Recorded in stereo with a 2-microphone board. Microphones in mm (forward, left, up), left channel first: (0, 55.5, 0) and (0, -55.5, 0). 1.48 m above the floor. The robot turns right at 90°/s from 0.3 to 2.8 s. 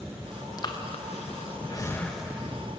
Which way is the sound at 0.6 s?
35° left (ahead or behind).